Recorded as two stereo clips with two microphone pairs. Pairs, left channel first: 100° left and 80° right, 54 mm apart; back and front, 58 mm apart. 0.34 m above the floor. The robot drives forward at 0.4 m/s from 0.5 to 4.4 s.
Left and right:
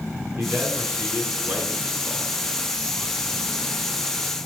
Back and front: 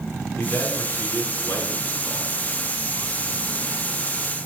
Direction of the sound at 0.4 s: 125° right.